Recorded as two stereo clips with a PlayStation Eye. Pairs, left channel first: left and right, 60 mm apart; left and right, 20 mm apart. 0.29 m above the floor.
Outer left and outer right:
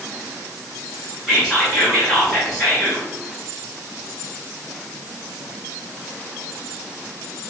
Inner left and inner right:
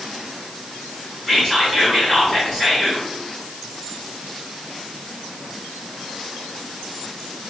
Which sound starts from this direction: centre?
Whispering, at 1.3 s.